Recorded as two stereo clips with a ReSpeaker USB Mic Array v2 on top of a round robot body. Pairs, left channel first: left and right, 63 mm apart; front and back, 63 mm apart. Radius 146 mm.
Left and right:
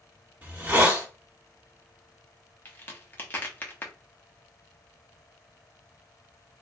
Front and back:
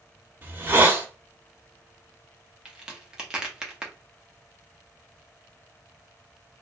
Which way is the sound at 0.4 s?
145° right.